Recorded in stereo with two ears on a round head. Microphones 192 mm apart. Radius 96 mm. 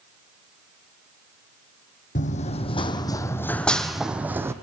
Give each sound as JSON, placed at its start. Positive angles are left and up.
{"t": 2.1, "sound": "running footsteps", "side_deg": 35, "distance_m": 2.0}